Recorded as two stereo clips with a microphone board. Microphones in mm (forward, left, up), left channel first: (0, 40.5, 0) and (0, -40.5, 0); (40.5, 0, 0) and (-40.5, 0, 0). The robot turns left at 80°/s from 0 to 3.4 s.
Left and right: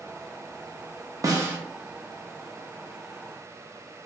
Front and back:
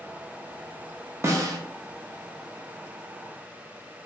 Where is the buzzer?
No buzzer in this recording.